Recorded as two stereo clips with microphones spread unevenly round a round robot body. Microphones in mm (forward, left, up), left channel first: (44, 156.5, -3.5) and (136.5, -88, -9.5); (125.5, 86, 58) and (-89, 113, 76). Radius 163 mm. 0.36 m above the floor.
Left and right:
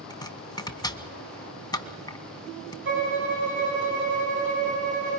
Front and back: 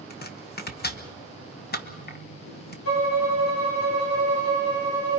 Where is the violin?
25° right, 4 m.